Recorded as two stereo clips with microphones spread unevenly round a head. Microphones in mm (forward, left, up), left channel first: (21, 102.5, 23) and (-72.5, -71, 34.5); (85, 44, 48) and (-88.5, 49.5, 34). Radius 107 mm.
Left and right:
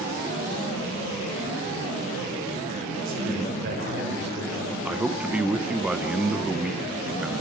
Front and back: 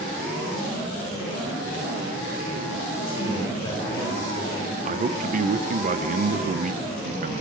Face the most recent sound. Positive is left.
turn(degrees=155)